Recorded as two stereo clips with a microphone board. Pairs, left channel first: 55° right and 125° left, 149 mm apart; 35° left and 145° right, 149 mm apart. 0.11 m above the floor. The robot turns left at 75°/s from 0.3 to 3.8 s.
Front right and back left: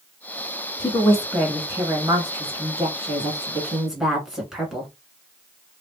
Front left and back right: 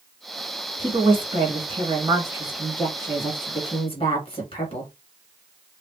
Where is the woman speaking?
95° right, 1.5 m; by 4.9 s 40° left, 1.5 m.